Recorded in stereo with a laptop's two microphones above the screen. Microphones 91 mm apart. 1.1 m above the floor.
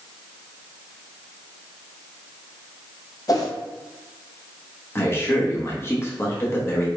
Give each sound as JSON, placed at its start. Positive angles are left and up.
{"t": 3.3, "sound": "a whoosh", "side_deg": 40, "distance_m": 0.7}
{"t": 5.0, "sound": "a man speaking", "side_deg": 25, "distance_m": 0.8}